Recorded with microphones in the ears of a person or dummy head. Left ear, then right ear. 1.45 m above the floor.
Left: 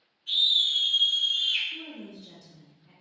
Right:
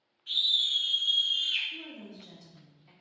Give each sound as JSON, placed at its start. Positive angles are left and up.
{"t": 0.3, "sound": "a scream", "side_deg": -35, "distance_m": 1.1}
{"t": 1.7, "sound": "a woman speaking", "side_deg": -75, "distance_m": 0.8}